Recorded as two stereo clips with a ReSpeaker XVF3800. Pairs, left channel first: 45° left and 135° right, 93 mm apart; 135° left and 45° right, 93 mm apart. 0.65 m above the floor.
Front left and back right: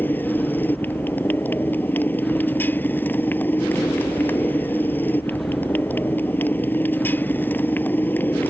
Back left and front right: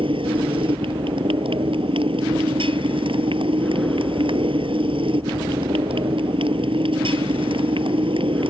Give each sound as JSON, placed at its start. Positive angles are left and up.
{"t": 0.0, "sound": "a motorcycle", "azimuth_deg": -25}